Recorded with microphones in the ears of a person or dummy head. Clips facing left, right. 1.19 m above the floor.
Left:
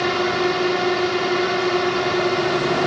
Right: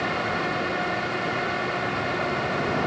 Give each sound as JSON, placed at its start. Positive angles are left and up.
{"t": 0.0, "sound": "a drone", "side_deg": 55}